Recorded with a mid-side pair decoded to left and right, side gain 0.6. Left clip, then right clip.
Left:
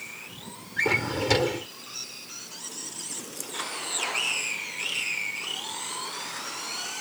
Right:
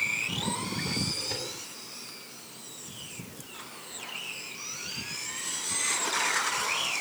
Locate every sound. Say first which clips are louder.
0.8 s a drawer: left 7 dB; 65° left